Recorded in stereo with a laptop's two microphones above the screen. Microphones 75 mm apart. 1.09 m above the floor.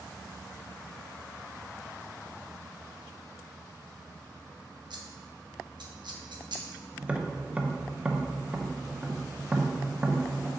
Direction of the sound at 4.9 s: 75° right (ahead or behind).